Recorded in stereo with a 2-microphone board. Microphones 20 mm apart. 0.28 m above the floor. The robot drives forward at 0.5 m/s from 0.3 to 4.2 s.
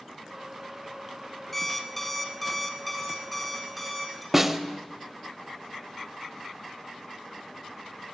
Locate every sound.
1.5 s an alarm clock: 10° left (ahead or behind), 0.6 m; by 4.2 s 5° left (ahead or behind), 1.8 m
4.3 s a snare drum: 20° right (ahead or behind), 0.5 m